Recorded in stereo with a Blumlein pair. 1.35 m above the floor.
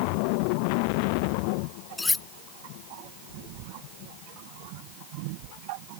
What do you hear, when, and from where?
2.0 s cutlery clinking: 10° left